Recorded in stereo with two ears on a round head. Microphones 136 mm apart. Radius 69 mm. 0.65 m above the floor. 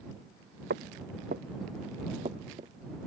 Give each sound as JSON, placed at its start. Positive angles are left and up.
{"t": 0.7, "sound": "footsteps", "side_deg": -70}